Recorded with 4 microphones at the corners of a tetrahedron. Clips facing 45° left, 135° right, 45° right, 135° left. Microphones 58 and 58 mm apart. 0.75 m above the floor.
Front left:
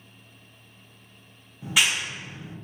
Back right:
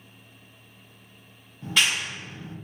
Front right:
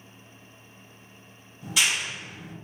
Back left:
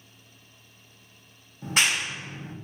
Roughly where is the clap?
Behind left.